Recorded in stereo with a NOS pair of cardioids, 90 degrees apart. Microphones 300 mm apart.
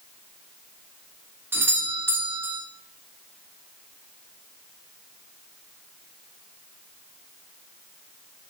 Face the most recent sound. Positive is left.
turn(degrees=-10)